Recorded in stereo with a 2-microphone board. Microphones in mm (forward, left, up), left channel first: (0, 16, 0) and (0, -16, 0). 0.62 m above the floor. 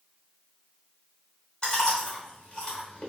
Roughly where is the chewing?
Left.